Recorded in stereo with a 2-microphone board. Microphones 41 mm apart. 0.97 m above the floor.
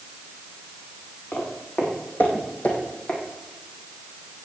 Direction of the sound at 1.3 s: 55° left (ahead or behind).